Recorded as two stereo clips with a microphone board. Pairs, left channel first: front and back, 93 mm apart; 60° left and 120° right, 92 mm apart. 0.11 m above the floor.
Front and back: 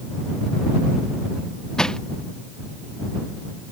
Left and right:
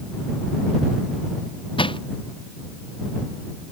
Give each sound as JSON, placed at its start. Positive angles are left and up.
{"t": 1.8, "sound": "crushing", "azimuth_deg": 80}